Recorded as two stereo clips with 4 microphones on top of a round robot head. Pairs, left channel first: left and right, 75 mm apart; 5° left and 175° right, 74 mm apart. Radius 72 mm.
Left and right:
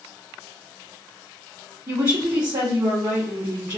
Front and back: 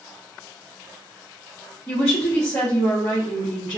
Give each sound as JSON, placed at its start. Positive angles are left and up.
{"t": 1.9, "sound": "a woman speaking", "azimuth_deg": -50, "distance_m": 0.9}